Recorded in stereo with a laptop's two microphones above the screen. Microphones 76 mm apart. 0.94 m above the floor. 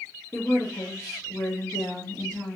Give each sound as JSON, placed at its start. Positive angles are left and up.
{"t": 0.3, "sound": "a woman speaking", "side_deg": 35, "distance_m": 1.5}